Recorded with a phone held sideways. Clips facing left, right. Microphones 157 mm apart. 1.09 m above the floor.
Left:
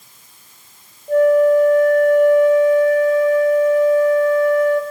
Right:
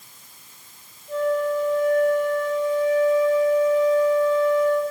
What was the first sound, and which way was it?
A flute, 60° left (ahead or behind).